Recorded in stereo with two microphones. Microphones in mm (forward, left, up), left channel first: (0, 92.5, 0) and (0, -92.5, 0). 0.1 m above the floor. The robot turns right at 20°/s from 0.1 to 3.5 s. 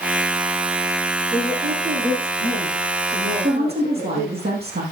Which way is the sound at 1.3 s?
140° right.